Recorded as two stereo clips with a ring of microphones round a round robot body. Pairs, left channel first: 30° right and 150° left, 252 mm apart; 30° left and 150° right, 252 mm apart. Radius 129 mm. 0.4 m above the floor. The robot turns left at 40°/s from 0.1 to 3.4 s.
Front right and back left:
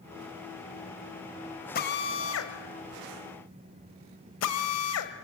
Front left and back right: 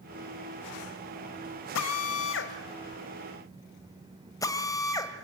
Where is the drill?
20° left, 1.8 m; by 5.1 s 45° right, 1.8 m.